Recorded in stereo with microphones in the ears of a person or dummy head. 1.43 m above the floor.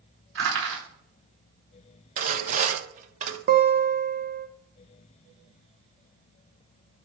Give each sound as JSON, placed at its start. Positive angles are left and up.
{"t": 0.3, "sound": "crushing", "side_deg": -60, "distance_m": 5.0}
{"t": 2.2, "sound": "sawing", "side_deg": -40, "distance_m": 1.1}
{"t": 3.5, "sound": "a guitar", "side_deg": -45, "distance_m": 1.0}